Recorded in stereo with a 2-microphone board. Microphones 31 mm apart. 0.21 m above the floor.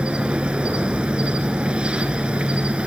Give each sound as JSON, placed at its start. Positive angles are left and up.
{"t": 0.0, "sound": "an insect", "side_deg": -40, "distance_m": 1.2}